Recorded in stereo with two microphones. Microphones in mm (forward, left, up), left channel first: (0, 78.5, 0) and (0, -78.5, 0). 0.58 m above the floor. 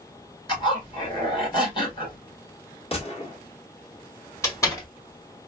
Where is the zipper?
30° left (ahead or behind), 2 m.